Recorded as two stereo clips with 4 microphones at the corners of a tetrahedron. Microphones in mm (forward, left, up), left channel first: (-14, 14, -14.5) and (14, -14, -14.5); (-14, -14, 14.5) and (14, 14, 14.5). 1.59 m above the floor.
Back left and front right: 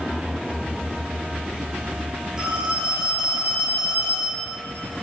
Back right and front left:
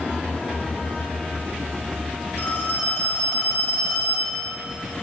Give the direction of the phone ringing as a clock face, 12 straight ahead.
4 o'clock.